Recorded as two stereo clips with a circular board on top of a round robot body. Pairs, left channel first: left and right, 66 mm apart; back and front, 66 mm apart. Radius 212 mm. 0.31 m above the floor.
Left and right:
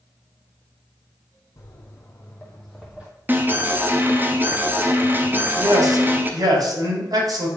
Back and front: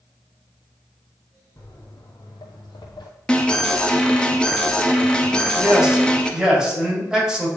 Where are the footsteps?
135° left, 1.3 m; by 3.1 s 155° right, 0.7 m.